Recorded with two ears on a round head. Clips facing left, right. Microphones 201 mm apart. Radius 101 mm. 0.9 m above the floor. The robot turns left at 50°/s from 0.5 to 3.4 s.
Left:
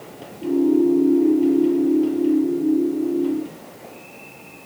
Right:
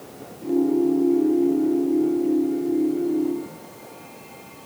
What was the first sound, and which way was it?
Only background noise.